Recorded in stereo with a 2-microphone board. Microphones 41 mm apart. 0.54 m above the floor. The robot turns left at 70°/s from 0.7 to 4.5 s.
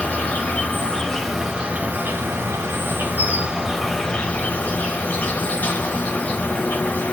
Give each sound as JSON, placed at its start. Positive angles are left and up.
{"t": 0.0, "sound": "an insect", "azimuth_deg": 40, "distance_m": 1.0}